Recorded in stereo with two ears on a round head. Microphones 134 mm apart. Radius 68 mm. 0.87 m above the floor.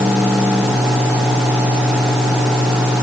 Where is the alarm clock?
I don't hear an alarm clock.